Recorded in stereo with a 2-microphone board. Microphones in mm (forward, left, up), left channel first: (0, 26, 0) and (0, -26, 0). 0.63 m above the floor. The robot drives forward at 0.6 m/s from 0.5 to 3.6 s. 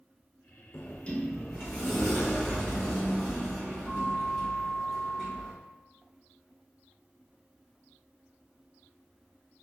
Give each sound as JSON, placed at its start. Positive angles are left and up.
{"t": 0.7, "sound": "a sliding door", "side_deg": 40, "distance_m": 0.5}